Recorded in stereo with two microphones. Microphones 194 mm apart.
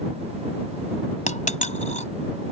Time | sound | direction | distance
1.3 | a dropped coin | 40° left (ahead or behind) | ?